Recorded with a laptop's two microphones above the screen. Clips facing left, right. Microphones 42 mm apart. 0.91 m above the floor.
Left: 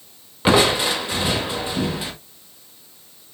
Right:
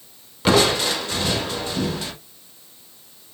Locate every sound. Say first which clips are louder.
0.5 s crushing: left 1 dB; 15° left (ahead or behind), 0.6 m